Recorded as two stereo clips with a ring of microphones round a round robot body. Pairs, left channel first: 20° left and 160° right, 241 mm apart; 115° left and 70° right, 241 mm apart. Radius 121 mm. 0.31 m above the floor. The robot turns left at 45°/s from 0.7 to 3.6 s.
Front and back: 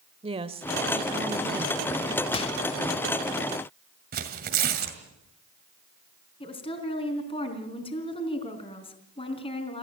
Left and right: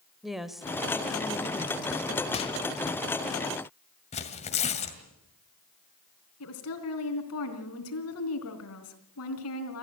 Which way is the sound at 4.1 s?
165° left.